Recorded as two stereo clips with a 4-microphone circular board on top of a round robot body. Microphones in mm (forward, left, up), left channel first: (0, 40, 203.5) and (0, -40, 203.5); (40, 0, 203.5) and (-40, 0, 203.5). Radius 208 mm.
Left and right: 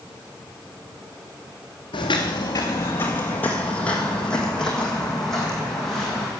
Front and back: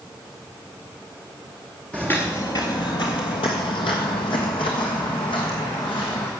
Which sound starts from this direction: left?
Footsteps, at 1.9 s.